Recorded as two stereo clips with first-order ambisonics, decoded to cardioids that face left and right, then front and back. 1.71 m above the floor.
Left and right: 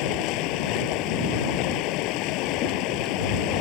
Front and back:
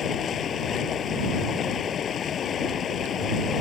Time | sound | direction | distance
0.0 | running water | 60° left | ?